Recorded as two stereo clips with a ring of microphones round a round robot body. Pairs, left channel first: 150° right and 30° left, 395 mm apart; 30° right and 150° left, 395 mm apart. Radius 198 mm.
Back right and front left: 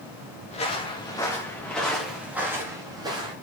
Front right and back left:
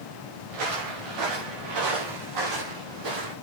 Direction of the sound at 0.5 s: 135° left.